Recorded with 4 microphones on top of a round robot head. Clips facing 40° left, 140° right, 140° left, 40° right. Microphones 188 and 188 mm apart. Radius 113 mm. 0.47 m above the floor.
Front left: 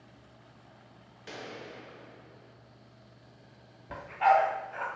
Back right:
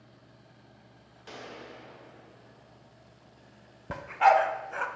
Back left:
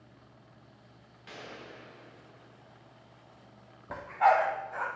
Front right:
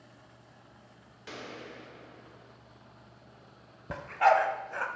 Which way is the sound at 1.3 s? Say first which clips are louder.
Front left 1 dB, front right 3 dB; 30° right.